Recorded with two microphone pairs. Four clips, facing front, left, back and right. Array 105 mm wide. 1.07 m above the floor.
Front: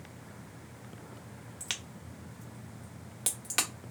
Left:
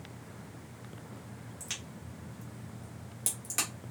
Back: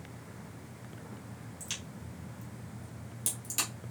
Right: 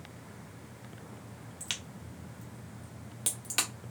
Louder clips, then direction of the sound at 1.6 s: Even, even; 25° right.